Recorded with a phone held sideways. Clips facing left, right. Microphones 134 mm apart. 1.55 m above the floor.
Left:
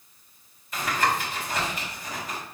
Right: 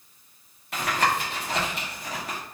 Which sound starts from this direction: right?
Tapping, at 0.7 s.